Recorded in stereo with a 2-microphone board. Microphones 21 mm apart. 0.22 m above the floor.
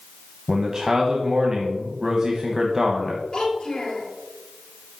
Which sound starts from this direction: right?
A man speaking, at 0.5 s.